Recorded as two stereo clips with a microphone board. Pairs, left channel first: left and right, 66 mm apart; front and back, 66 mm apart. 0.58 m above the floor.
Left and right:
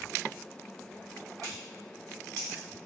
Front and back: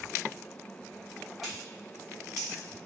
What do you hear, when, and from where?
1.4 s scissors: 95° right, 1.5 m